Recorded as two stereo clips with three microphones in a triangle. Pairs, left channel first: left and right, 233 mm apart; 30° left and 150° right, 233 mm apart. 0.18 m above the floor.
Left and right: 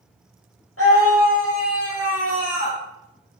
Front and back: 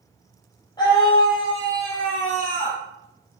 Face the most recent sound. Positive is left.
turn(degrees=85)